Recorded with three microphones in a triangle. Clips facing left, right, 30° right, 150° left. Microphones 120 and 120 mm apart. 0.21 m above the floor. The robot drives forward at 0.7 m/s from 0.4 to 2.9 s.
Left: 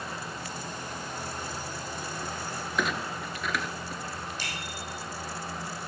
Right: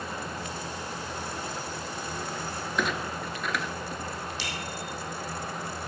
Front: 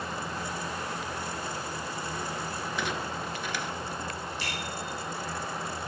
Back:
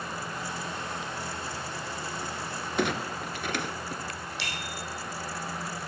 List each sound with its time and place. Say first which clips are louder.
2.8 s a clunk: right 1 dB, back 6 dB; straight behind, 1.0 m
4.4 s a bicycle bell: right 3 dB, front 2 dB; 135° left, 6.5 m